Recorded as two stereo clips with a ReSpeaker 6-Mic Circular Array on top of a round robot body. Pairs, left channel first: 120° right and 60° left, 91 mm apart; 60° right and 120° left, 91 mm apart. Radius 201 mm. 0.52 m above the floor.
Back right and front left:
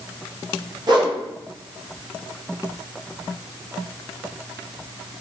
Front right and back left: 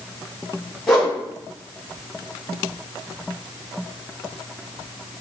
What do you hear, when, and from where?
0.9 s a whoosh: 25° left, 1.7 m